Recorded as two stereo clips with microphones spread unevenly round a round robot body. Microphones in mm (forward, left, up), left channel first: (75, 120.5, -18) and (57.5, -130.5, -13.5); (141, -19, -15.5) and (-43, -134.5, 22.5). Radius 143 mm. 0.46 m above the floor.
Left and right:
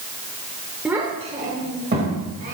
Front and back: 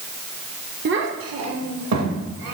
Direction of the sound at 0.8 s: Straight behind.